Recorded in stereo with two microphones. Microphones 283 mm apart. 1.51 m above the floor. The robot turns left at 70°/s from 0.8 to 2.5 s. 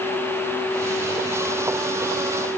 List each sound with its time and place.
Only background noise.